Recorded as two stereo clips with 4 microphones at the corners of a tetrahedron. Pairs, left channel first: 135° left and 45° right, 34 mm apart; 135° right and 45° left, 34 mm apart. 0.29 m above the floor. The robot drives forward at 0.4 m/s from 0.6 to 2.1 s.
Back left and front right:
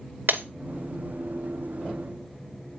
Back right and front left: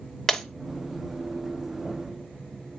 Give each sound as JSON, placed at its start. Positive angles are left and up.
{"t": 0.3, "sound": "breaking glass", "azimuth_deg": -55, "distance_m": 1.3}